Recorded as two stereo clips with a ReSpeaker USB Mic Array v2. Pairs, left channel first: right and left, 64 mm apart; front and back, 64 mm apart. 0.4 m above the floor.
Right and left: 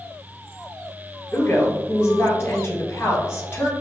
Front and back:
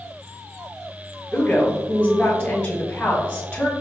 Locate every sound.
1.3 s a woman speaking: 45° right, 1.5 m